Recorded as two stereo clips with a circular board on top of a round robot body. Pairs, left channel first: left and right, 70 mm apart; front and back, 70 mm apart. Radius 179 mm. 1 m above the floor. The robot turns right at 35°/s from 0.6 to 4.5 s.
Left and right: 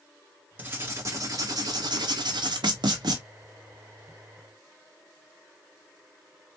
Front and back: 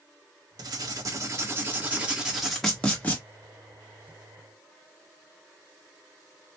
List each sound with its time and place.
0.6 s writing: 155° right, 1.3 m; by 3.2 s 65° right, 1.3 m